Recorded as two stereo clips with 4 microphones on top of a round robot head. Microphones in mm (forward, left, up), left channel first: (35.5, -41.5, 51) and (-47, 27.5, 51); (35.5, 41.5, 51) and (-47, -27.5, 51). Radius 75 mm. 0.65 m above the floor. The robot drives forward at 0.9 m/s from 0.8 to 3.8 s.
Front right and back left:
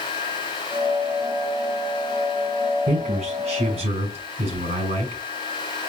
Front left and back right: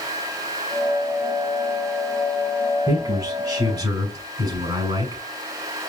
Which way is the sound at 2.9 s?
160° left.